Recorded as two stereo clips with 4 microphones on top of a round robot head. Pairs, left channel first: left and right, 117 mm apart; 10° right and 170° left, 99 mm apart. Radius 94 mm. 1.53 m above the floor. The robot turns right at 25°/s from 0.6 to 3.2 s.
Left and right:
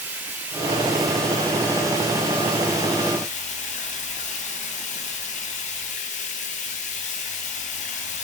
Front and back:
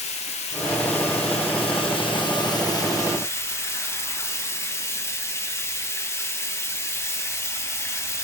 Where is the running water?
10° right, 1.6 m; by 8.2 s 55° left, 1.6 m.